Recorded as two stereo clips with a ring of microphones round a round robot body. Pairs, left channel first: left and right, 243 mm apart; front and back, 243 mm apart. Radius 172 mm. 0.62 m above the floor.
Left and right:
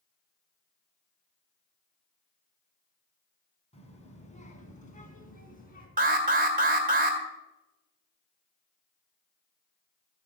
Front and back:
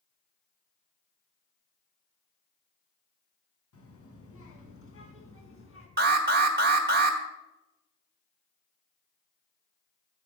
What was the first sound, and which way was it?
A child speaking, 25° left.